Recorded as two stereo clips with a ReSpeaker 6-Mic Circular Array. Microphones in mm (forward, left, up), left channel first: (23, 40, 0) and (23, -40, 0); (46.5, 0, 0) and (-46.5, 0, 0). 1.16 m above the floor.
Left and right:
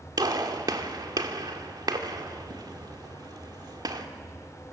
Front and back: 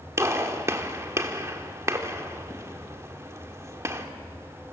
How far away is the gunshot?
About 1.7 m.